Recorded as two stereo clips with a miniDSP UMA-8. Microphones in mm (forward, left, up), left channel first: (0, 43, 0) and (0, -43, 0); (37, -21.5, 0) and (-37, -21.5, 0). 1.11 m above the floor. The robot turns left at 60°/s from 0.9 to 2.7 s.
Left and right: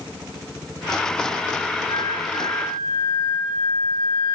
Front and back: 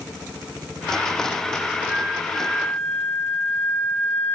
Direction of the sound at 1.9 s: 115° left.